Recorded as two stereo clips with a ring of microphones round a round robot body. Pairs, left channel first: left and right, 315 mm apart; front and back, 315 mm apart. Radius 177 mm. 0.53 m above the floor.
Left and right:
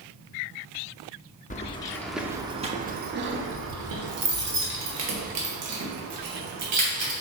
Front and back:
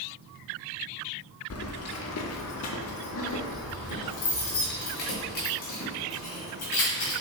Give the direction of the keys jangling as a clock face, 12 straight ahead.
11 o'clock.